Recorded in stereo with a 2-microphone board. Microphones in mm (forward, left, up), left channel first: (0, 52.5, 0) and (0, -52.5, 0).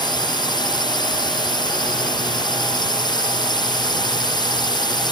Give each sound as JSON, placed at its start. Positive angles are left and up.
{"t": 0.0, "sound": "a drone", "side_deg": 45}